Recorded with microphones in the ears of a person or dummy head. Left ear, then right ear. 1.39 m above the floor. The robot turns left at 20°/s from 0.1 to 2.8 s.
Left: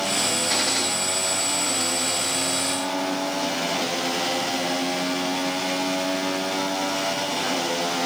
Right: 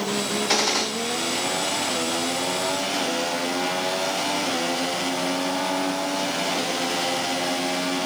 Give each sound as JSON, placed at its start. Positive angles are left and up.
{"t": 0.5, "sound": "a gunshot", "side_deg": -30, "distance_m": 1.4}